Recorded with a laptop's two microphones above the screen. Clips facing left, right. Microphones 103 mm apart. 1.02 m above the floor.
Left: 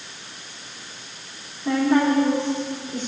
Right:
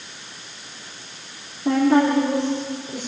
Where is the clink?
No clink in this recording.